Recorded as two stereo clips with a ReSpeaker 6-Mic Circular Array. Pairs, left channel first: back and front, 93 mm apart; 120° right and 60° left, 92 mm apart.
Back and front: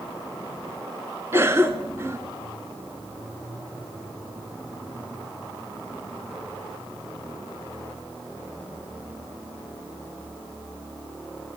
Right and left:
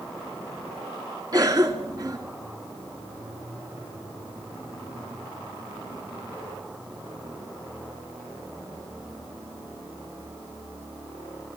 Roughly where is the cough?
Ahead left.